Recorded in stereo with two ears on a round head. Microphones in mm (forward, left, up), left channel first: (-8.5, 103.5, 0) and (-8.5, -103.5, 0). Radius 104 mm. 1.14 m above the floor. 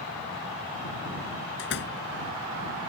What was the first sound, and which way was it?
A door slam, 50° left (ahead or behind).